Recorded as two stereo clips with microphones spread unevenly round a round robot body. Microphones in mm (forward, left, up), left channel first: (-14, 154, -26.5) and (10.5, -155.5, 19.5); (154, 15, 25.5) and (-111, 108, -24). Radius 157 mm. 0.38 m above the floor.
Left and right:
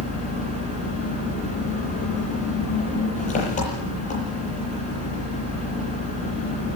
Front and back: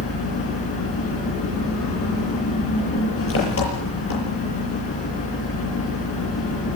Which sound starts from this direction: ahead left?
An engine running, at 0.0 s.